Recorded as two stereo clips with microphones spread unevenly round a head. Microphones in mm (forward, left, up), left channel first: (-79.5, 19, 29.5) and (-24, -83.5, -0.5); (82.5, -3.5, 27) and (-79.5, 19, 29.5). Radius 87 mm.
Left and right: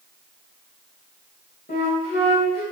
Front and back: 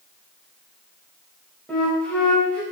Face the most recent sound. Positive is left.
turn(degrees=75)